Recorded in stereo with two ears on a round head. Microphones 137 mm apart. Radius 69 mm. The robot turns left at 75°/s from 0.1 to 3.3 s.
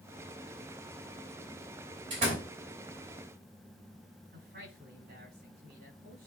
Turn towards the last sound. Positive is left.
turn(degrees=-65)  # may be behind; listen again after turning